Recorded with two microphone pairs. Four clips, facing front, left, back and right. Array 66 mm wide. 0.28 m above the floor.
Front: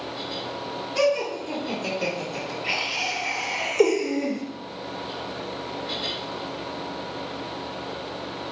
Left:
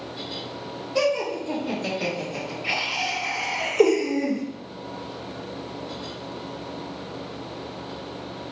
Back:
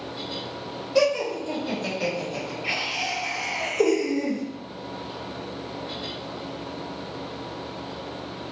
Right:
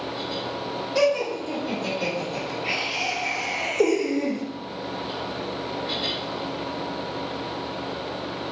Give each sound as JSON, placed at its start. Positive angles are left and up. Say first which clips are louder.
{"t": 0.9, "sound": "laughter", "louder": "right 1 dB, back 1 dB", "azimuth_deg": -170, "distance_m": 1.9}